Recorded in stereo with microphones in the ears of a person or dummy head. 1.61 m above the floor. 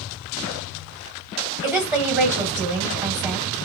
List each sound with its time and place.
1.6 s a woman speaking: 10° right (ahead or behind), 1.3 m